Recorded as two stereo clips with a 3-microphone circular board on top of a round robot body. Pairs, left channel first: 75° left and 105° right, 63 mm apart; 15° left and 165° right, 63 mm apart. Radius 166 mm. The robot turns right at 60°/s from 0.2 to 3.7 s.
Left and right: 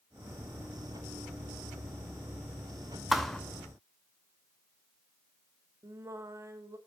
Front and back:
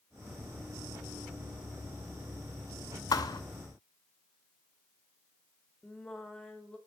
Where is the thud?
20° right, 0.6 m; by 3.4 s straight ahead, 0.6 m.